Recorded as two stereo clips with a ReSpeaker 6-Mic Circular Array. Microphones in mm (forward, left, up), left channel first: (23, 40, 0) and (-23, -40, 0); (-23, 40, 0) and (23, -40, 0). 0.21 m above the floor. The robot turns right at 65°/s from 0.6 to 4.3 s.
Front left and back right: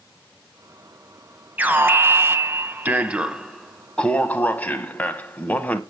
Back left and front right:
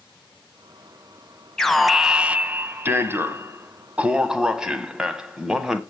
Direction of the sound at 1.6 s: 165° right.